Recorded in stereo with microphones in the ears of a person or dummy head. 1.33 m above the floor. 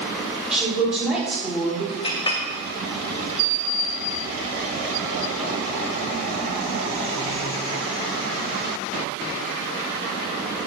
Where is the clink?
30° left (ahead or behind), 1.2 m.